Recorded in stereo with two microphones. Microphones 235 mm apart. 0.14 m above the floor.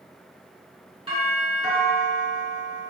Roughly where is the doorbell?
Right.